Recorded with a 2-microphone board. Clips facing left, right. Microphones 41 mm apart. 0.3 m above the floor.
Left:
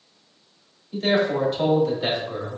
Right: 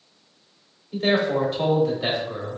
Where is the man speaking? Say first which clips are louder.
Even; 25° right (ahead or behind), 1.1 m; by 2.6 s 5° left (ahead or behind), 1.3 m.